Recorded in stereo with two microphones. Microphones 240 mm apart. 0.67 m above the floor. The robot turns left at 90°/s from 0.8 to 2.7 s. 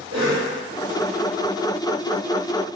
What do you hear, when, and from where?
0.1 s a cough: 70° right (ahead or behind), 1.9 m